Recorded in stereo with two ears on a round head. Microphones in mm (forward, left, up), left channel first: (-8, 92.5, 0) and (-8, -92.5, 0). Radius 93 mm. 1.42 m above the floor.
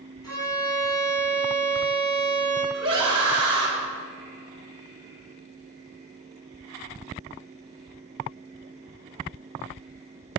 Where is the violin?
20° left (ahead or behind), 4.5 m.